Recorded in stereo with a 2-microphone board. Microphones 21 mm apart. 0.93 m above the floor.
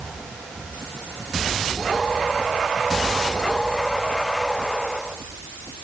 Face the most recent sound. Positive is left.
No sound to turn to.